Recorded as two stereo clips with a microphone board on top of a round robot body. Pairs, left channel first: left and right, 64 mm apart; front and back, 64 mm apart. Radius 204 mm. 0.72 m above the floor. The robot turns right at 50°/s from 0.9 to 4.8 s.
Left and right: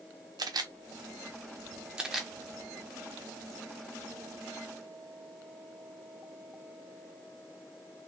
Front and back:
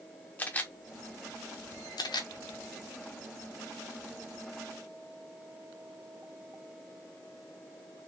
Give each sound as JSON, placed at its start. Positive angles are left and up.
{"t": 0.4, "sound": "a camera shutter", "azimuth_deg": -65, "distance_m": 0.7}